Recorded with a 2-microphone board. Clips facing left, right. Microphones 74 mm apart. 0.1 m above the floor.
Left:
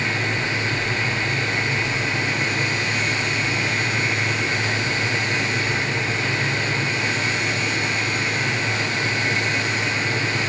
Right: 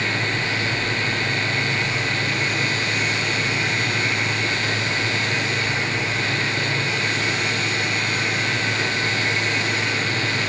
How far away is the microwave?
I don't hear a microwave.